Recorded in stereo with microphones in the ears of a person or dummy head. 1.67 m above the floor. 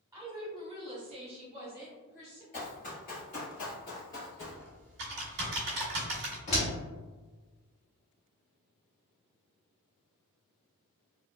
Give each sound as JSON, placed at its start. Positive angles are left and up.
{"t": 0.1, "sound": "a woman speaking", "side_deg": -15, "distance_m": 1.2}
{"t": 2.5, "sound": "running footsteps", "side_deg": 35, "distance_m": 2.0}
{"t": 4.4, "sound": "typing on a keyboard", "side_deg": -60, "distance_m": 1.7}
{"t": 6.5, "sound": "a door slam", "side_deg": 25, "distance_m": 0.8}